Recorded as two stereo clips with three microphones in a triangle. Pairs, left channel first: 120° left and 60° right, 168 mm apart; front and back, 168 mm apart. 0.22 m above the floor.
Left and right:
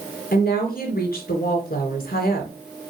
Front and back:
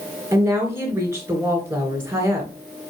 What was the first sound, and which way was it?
A woman speaking, 105° left.